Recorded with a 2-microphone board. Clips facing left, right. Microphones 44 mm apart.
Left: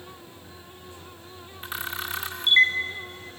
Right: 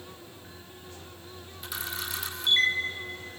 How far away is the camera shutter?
About 2 m.